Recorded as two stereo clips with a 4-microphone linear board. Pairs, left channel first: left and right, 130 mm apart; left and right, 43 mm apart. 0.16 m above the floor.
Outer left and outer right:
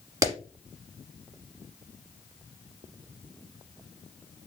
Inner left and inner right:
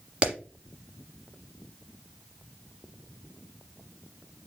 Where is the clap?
30° right (ahead or behind), 1.3 m.